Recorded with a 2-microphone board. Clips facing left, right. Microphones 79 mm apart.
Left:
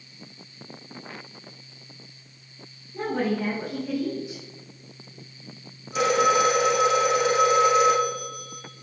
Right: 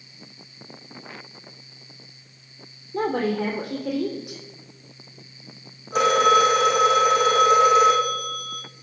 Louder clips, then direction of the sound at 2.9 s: Right 3 dB; 65° right (ahead or behind).